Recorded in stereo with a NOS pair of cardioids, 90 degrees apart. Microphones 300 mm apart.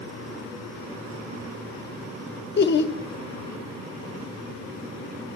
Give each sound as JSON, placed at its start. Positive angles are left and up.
{"t": 2.6, "sound": "laughter", "azimuth_deg": 40, "distance_m": 0.8}